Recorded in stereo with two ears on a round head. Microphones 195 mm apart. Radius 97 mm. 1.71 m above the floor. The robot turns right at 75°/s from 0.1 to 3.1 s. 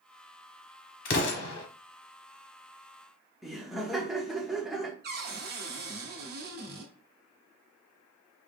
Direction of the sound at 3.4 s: Centre (ahead or behind).